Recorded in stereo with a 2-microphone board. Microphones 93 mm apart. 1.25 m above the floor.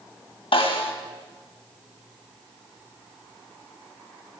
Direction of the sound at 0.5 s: 80° left.